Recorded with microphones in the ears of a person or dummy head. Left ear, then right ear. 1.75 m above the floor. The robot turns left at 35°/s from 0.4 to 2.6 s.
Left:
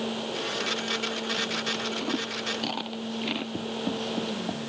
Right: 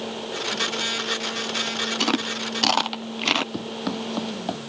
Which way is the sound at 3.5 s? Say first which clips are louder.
Right 2 dB; 60° right (ahead or behind).